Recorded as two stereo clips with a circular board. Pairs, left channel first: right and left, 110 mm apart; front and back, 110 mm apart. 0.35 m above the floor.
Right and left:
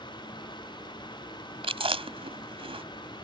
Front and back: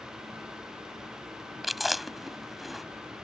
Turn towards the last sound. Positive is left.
turn(degrees=90)